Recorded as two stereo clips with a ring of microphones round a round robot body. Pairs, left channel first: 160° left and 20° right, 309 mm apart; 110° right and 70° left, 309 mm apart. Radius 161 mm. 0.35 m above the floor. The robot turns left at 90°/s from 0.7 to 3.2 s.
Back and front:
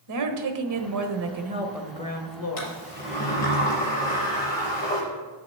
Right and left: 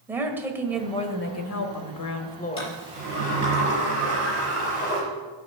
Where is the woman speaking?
15° right, 1.4 m; by 2.8 s 155° left, 1.4 m.